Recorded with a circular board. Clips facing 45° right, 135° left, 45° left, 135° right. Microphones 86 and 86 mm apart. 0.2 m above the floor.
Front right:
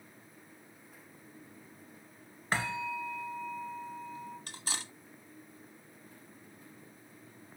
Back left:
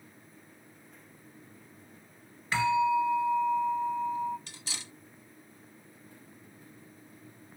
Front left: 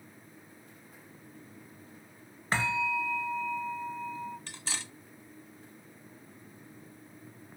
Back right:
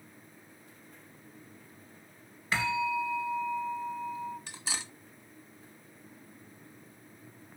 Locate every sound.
2.5 s a bell: straight ahead, 0.6 m
4.5 s cutlery clinking: 65° right, 1.0 m